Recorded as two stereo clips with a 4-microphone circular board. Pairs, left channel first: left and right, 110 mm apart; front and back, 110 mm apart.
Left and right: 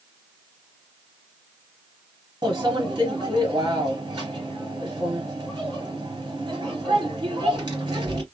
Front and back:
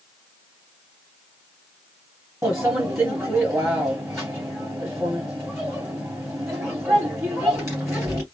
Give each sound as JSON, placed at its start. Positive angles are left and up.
{"t": 2.4, "sound": "a microwave", "azimuth_deg": -125, "distance_m": 2.0}